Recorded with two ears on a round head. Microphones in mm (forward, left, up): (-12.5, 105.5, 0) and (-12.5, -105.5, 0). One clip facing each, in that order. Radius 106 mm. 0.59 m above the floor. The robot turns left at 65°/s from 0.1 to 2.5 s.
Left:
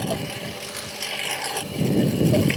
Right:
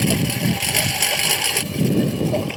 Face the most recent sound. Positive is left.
turn(degrees=30)  # may be behind; listen again after turning